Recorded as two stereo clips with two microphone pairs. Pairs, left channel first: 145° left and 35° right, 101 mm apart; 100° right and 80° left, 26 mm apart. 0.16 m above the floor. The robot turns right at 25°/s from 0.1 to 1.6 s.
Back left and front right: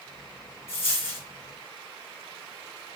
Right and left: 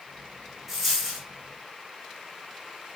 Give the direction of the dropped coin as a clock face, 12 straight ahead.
7 o'clock.